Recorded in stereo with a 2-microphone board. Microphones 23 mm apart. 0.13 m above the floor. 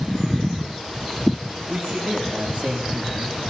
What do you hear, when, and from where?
1.7 s a man speaking: 70° right (ahead or behind), 8 m